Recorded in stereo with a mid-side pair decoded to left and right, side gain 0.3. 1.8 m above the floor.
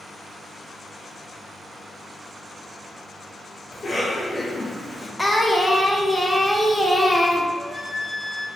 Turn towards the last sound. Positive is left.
turn(degrees=15)